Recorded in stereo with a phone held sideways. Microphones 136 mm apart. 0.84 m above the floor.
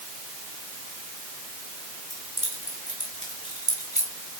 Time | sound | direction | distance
2.1 | keys jangling | 85° right | 7 m